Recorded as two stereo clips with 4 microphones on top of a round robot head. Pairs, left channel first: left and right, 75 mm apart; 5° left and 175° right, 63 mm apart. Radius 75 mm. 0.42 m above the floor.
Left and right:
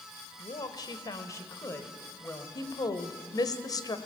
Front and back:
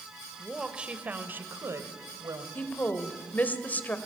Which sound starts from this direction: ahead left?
A woman speaking, at 2.5 s.